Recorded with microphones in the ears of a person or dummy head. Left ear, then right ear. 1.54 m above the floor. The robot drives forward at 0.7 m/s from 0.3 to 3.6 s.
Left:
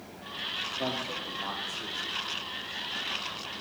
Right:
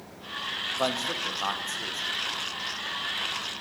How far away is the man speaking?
About 1.1 m.